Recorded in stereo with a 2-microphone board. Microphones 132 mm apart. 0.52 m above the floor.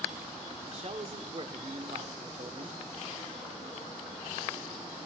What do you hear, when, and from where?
0.7 s a man speaking: 50° right (ahead or behind), 1.0 m